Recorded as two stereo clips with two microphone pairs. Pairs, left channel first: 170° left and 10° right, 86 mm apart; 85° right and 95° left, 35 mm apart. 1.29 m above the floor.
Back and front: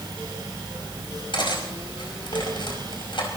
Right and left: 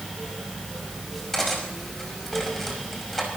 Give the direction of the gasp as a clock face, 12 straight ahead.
No gasp in this recording.